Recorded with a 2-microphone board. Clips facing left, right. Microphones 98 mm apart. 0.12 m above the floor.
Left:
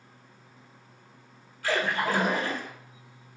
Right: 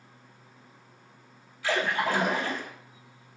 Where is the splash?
50° left (ahead or behind), 1.6 m.